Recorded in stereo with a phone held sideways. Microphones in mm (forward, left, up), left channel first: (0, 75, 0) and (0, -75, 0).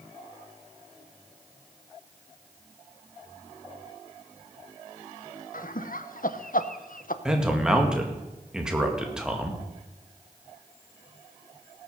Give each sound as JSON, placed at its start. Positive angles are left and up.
{"t": 5.5, "sound": "laughter", "side_deg": 65, "distance_m": 0.8}
{"t": 7.2, "sound": "a man speaking", "side_deg": -5, "distance_m": 2.0}